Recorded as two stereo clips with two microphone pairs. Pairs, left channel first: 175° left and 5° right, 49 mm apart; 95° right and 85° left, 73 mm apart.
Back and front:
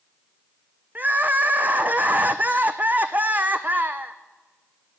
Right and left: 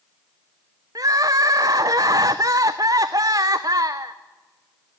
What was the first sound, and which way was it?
Crying, 55° left.